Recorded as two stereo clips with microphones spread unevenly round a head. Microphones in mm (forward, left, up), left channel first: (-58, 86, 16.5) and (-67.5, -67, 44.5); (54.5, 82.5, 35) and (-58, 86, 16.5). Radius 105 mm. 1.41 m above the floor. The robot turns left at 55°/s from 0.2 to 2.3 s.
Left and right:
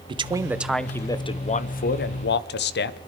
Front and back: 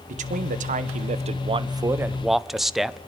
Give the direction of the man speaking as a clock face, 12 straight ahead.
5 o'clock.